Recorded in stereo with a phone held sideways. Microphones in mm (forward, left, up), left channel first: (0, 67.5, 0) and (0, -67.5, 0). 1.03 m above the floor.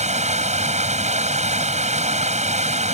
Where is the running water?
60° right (ahead or behind).